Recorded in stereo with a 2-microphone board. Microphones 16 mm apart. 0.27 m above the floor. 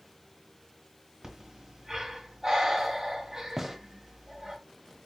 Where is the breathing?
45° right (ahead or behind), 1.6 m.